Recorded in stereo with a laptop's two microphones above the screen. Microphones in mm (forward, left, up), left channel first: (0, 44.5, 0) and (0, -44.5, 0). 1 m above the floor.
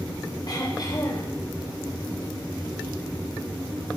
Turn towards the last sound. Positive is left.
turn(degrees=50)  # may be behind; listen again after turning